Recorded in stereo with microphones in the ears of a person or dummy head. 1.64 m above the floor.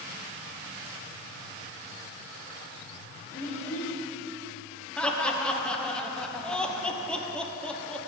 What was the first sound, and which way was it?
A child speaking, 55° left (ahead or behind).